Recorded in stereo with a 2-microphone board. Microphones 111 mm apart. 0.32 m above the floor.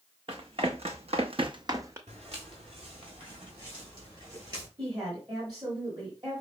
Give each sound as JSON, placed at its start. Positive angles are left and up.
{"t": 0.3, "sound": "running footsteps", "side_deg": -55, "distance_m": 1.1}
{"t": 2.1, "sound": "footsteps", "side_deg": -70, "distance_m": 1.5}
{"t": 4.8, "sound": "a woman speaking", "side_deg": -40, "distance_m": 1.8}